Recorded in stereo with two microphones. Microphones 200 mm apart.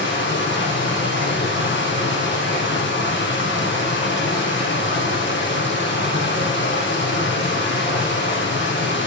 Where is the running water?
65° left (ahead or behind), 5.5 m.